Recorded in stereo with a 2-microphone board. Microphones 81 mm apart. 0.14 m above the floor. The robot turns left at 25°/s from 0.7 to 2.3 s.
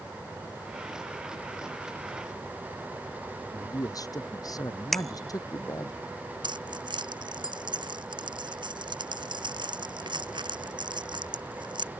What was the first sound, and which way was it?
A man speaking, 50° left (ahead or behind).